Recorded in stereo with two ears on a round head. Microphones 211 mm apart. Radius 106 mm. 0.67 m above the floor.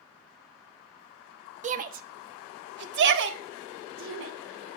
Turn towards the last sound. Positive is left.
turn(degrees=-60)  # may be behind; listen again after turning